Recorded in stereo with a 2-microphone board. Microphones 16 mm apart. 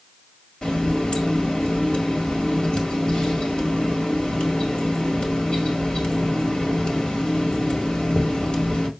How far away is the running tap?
About 1.9 m.